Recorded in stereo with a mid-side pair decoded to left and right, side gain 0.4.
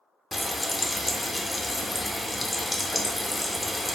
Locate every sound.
0.3 s frying: 20° left, 0.6 m